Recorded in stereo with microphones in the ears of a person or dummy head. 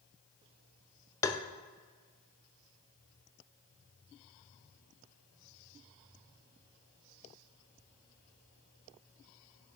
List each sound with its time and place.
1.2 s tapping: 15° left (ahead or behind), 0.7 m